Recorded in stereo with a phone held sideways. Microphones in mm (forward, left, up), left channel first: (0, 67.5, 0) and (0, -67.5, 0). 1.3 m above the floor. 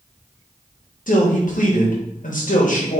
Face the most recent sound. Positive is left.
turn(degrees=80)